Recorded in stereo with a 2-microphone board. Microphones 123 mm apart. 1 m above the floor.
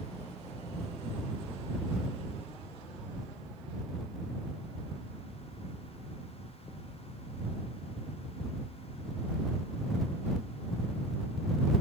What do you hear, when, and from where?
Only background noise.